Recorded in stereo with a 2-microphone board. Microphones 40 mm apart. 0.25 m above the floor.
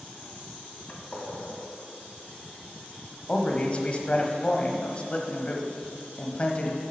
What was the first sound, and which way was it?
A gunshot, 30° left (ahead or behind).